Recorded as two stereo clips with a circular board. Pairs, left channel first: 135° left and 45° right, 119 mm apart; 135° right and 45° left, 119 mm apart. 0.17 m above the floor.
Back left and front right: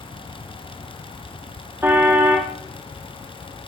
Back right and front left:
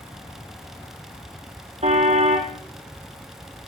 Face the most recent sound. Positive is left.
turn(degrees=25)